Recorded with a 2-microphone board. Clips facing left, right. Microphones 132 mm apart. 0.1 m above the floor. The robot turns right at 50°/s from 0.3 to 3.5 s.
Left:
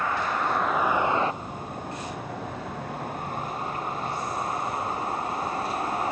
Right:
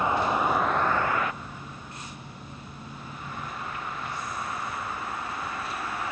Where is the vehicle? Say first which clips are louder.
Right 2 dB; 20° right; by 6.1 s 140° left.